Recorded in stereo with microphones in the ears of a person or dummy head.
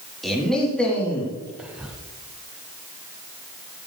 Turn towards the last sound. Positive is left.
turn(degrees=-5)  # may be behind; listen again after turning